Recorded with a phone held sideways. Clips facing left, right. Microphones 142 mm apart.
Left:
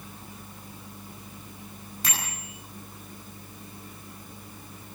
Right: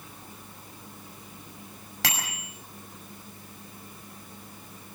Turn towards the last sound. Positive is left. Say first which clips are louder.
# right 3 dB
turn(degrees=-85)